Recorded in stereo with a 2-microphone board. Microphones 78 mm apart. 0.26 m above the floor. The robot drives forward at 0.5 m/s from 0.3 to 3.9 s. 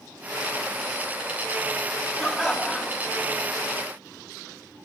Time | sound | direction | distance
2.2 | laughter | 5° right (ahead or behind) | 1.7 m